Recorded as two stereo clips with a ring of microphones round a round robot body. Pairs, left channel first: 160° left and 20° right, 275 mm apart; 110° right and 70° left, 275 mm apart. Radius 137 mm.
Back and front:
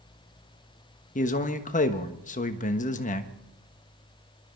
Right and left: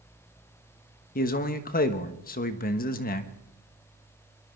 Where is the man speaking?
155° right, 1.3 m.